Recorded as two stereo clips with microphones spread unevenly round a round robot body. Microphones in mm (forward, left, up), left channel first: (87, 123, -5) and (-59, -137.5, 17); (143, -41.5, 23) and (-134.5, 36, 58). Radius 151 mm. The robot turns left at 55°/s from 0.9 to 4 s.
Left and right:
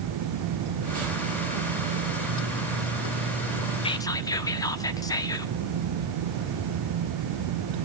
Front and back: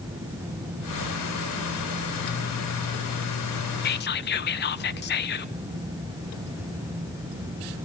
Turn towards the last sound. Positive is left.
turn(degrees=-5)